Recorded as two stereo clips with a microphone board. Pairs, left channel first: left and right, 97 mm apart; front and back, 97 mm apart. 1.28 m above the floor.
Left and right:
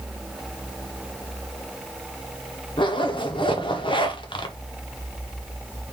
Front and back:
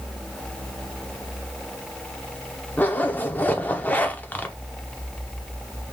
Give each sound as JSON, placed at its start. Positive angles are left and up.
{"t": 2.8, "sound": "a zipper", "azimuth_deg": 70, "distance_m": 0.6}